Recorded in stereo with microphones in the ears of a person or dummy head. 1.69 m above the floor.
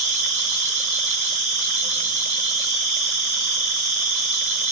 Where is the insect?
35° right (ahead or behind), 1.8 m.